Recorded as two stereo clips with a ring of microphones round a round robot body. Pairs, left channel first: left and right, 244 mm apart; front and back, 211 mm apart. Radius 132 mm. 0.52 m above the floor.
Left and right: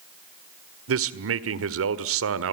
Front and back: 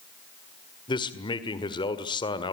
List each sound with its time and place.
0.9 s a man speaking: 70° right, 1.7 m